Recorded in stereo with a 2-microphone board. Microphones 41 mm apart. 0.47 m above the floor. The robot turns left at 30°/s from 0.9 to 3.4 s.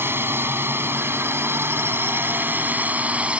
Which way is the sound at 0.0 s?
75° right.